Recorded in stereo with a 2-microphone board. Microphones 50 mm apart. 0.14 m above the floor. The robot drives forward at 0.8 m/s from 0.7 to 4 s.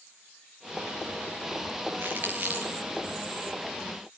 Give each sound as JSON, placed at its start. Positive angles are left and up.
{"t": 2.0, "sound": "crumpling", "side_deg": -45, "distance_m": 2.0}